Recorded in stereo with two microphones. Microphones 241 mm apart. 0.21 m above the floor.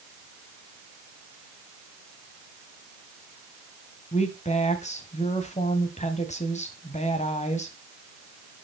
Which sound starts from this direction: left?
A woman speaking, at 4.1 s.